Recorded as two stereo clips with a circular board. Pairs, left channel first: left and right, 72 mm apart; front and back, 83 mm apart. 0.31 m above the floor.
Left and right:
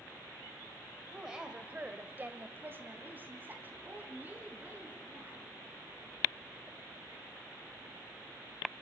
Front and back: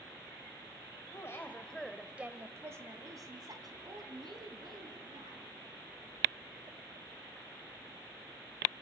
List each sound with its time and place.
1.1 s a woman speaking: 10° right, 1.5 m; by 5.4 s 155° right, 5 m